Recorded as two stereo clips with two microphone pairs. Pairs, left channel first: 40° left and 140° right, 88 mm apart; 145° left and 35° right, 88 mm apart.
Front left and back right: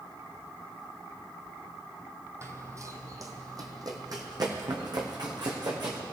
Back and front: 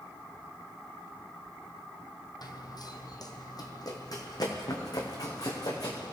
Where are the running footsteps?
170° left, 1.4 m; by 6.0 s 170° right, 3.5 m.